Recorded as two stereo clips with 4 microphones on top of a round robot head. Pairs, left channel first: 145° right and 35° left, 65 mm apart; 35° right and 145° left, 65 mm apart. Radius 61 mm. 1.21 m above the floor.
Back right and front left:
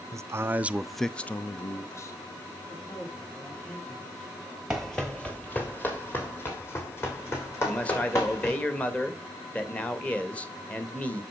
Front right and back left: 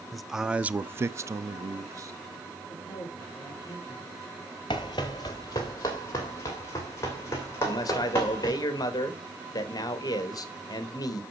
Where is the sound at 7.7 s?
70° right, 1.5 m.